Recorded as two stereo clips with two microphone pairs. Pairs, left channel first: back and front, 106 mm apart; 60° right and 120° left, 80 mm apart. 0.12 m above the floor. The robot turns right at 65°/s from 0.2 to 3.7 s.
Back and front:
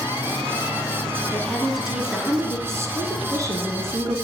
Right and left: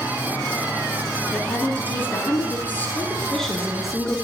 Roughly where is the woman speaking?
Behind right.